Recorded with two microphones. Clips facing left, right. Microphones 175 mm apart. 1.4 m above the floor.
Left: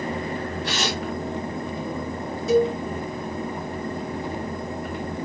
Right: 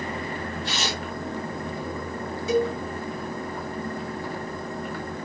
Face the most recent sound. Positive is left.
turn(degrees=40)  # may be behind; listen again after turning